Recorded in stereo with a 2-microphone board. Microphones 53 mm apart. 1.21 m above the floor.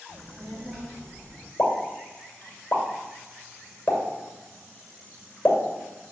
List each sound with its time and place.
0.1 s a child speaking: 40° right (ahead or behind), 2 m; by 1.5 s 10° left (ahead or behind), 3 m
1.6 s a pop: 30° left (ahead or behind), 2.5 m